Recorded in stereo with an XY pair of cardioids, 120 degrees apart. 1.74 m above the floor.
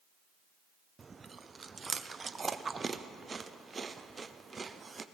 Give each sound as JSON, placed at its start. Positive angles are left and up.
{"t": 1.0, "sound": "chewing", "azimuth_deg": -25, "distance_m": 0.6}